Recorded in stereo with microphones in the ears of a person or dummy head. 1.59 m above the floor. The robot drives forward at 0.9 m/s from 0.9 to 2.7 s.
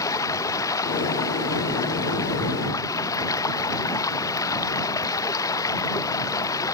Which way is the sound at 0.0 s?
15° left (ahead or behind).